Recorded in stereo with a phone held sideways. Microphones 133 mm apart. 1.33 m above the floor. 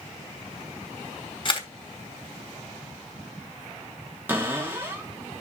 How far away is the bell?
No bell in this recording.